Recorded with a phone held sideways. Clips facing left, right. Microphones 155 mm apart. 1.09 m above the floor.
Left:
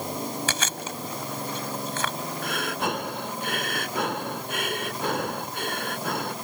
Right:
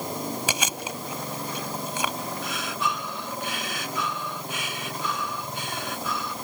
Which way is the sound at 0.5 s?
15° right (ahead or behind).